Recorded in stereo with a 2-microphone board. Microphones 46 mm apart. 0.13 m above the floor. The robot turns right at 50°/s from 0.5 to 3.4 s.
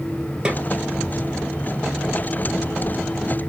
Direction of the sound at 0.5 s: 20° right (ahead or behind).